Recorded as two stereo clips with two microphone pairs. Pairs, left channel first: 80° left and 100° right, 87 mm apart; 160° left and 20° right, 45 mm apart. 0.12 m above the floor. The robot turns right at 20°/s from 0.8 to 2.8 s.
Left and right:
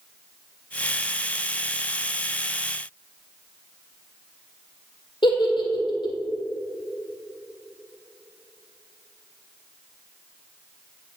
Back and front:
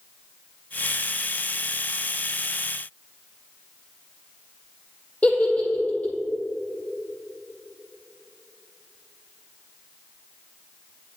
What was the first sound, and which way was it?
A giggle, 100° left.